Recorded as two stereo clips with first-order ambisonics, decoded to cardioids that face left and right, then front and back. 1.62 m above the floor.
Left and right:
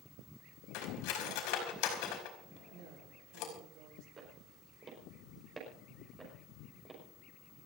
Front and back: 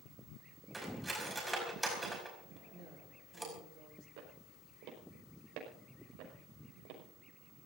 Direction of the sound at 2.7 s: 130° right.